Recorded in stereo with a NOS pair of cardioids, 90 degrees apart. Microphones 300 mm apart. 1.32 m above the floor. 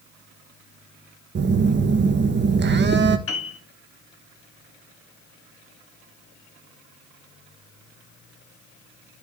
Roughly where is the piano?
Ahead left.